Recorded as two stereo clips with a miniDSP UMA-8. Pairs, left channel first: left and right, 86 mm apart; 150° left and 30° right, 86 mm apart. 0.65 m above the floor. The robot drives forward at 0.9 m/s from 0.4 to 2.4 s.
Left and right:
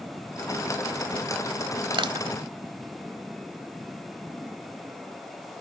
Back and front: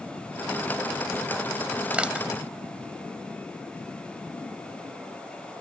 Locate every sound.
1.9 s crushing: 105° right; by 2.3 s 115° right